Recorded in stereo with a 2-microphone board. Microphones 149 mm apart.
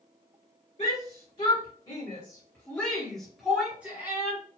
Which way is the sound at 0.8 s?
45° left (ahead or behind).